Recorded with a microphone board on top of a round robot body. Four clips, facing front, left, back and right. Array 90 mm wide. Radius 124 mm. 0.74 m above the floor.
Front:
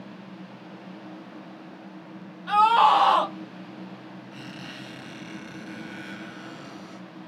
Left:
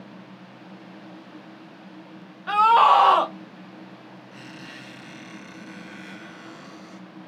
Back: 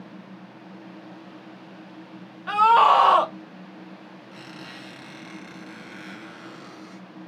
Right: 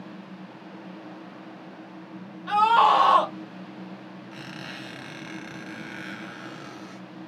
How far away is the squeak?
About 0.8 m.